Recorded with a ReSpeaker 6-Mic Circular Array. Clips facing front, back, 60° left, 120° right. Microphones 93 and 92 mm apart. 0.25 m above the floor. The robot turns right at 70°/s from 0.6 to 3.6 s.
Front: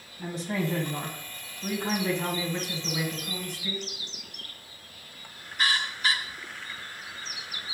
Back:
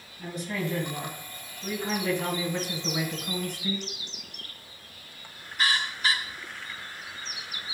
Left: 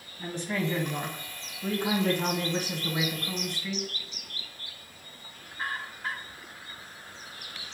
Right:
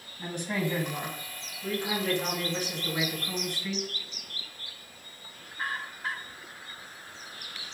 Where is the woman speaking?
50° right, 1.8 m; by 3.9 s 160° left, 1.8 m.